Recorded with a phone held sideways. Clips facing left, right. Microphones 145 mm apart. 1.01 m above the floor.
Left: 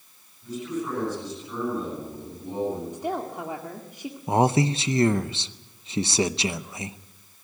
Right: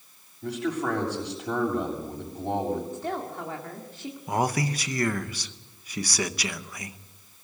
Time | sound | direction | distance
0.4 | a man speaking | 65° right (ahead or behind) | 6.5 m
2.9 | a woman speaking | 15° left (ahead or behind) | 1.9 m
4.3 | a man speaking | 25° left (ahead or behind) | 0.7 m